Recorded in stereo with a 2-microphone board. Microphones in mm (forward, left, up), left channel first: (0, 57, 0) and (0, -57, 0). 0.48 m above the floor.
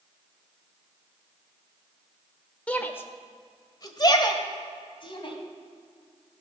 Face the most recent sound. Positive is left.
turn(degrees=45)  # may be behind; listen again after turning